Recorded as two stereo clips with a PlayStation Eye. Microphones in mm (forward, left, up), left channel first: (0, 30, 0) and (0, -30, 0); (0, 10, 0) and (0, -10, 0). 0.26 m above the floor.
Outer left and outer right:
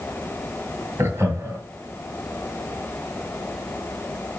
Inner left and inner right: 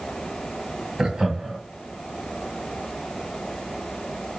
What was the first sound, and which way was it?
Laughter, 45° right (ahead or behind).